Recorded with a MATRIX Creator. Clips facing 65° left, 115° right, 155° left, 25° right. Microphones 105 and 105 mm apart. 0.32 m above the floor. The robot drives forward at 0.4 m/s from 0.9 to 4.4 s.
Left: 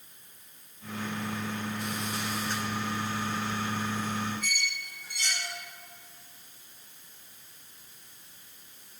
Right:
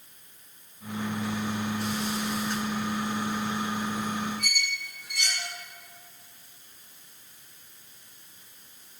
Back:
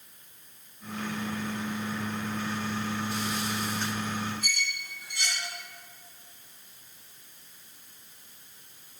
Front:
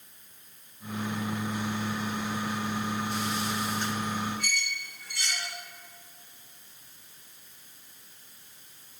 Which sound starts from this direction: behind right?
A squeak, at 4.4 s.